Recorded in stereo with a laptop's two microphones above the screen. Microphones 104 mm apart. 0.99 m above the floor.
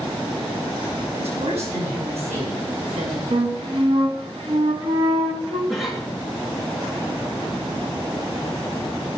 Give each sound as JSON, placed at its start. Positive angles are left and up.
{"t": 1.2, "sound": "a woman speaking", "side_deg": -90, "distance_m": 6.0}
{"t": 3.3, "sound": "a flute", "side_deg": -70, "distance_m": 1.9}
{"t": 5.7, "sound": "a cough", "side_deg": 0, "distance_m": 1.7}